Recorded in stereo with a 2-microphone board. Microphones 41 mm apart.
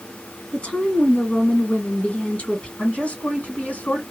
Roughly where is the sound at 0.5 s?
Left.